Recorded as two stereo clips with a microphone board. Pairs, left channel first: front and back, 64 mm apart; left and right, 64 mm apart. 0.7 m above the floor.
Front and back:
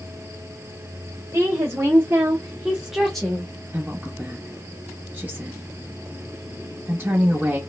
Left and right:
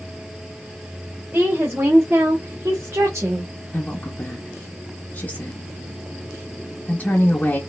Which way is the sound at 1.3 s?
150° right.